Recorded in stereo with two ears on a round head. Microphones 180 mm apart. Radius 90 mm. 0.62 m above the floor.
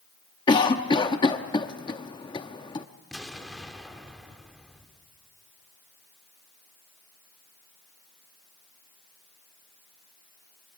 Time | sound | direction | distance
0.5 | a cough | 20° left (ahead or behind) | 0.7 m
3.1 | an explosion | centre (ahead or behind) | 2 m